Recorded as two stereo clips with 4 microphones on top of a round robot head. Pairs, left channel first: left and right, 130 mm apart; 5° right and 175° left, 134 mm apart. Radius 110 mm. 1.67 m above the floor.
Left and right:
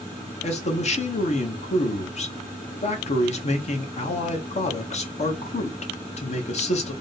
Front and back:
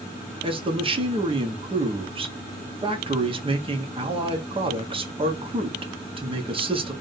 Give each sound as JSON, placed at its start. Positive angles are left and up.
{"t": 0.4, "sound": "a man speaking", "azimuth_deg": 125, "distance_m": 1.4}